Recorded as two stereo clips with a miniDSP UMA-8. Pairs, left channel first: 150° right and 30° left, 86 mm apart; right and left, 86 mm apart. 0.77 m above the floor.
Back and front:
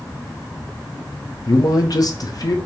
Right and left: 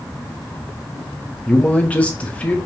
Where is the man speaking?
155° right, 0.5 m.